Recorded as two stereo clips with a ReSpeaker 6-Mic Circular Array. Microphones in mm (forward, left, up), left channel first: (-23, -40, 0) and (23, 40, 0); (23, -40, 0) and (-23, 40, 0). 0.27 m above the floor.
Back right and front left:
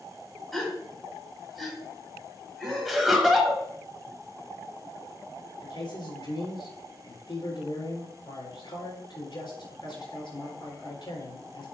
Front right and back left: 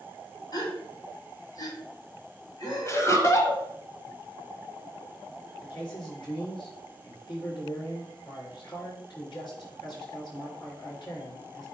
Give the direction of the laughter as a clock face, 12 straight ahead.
1 o'clock.